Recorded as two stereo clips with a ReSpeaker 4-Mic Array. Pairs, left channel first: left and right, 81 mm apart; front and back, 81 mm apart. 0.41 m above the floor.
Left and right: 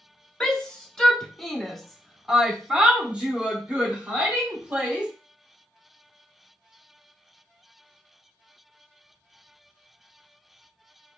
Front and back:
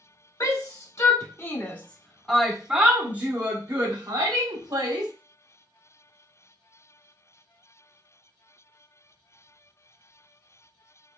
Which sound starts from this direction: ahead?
A shout, at 0.4 s.